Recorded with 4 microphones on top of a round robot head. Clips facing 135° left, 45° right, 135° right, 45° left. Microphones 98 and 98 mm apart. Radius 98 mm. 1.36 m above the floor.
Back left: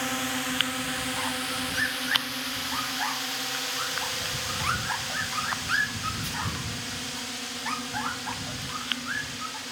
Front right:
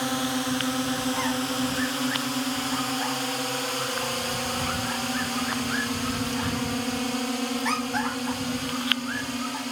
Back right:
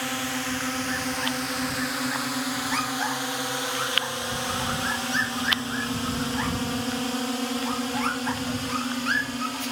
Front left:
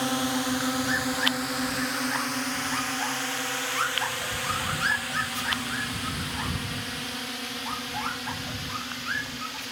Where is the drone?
5° left; by 9.7 s 85° right.